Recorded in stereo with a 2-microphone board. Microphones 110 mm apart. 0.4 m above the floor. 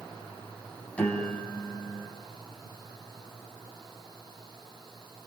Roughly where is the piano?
Centre.